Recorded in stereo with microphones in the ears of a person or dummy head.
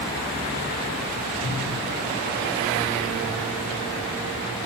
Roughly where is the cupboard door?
Right.